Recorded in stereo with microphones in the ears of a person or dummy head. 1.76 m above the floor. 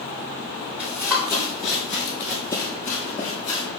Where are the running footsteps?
10° right (ahead or behind), 2.5 m; by 3.7 s 15° left (ahead or behind), 3.5 m.